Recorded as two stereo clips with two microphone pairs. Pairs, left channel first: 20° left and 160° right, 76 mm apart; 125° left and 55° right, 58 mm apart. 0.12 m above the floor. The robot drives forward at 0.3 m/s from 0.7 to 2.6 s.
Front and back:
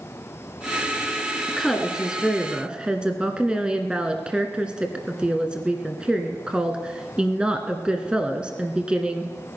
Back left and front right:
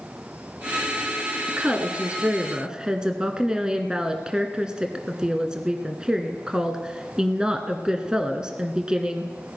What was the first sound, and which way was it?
A woman speaking, 60° right.